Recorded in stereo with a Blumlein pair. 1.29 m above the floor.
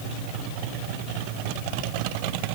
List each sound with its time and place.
Only background noise.